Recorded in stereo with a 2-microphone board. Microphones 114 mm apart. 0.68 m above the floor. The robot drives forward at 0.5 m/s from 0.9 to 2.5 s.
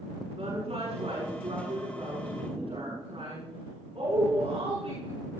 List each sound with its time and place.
0.4 s a woman speaking: 65° right (ahead or behind), 7.5 m; by 5.2 s 60° right (ahead or behind), 8 m